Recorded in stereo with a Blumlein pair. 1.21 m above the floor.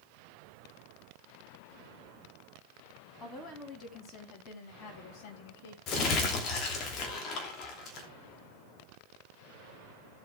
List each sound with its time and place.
3.2 s a woman speaking: 20° left, 3.5 m; by 5.8 s 55° left, 3 m
5.9 s crumpling: 35° left, 3 m